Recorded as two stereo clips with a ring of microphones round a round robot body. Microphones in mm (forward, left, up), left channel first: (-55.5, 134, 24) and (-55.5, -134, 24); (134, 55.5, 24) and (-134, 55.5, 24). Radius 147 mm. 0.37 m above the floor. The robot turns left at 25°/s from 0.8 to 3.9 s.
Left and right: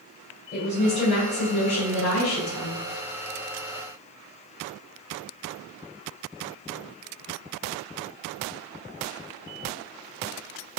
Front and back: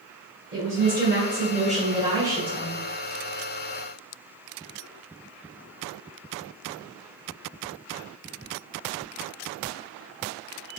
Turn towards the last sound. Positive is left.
turn(degrees=65)